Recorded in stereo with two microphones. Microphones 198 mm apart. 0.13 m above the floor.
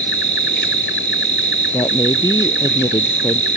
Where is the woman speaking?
20° left (ahead or behind).